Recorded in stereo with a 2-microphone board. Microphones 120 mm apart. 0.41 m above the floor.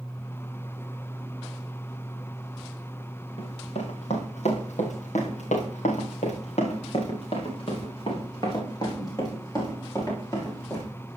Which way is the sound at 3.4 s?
55° left (ahead or behind).